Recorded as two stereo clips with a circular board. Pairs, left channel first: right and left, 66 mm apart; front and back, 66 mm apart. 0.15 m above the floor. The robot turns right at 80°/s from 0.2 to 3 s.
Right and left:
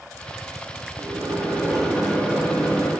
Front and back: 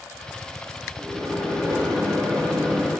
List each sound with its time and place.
1.0 s a microwave: 110° left, 2 m; by 2.9 s 95° right, 2 m